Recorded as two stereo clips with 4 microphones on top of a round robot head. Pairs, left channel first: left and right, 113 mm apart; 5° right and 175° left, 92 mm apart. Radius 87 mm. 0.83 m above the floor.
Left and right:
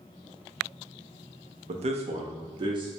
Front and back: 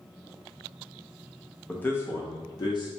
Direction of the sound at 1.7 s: 80° right.